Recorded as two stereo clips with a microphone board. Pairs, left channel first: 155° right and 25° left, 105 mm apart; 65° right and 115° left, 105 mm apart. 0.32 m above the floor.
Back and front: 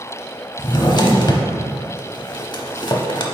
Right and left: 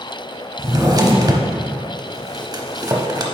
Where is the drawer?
160° left, 0.7 m.